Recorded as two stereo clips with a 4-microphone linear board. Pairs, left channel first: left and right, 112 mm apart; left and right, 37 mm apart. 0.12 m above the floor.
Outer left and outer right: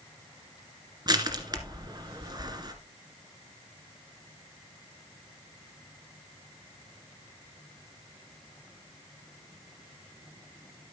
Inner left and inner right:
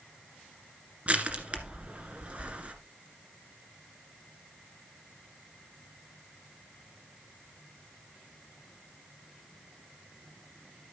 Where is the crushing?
35° right (ahead or behind), 1.7 m.